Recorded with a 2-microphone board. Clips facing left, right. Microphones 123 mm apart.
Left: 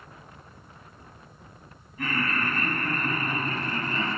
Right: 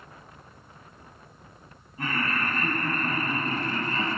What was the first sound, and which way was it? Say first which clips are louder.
Laughter: even; 30° right (ahead or behind).